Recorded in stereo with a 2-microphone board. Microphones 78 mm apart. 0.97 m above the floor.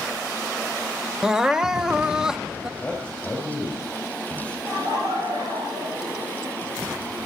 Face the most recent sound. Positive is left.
turn(degrees=-60)  # may be behind; listen again after turning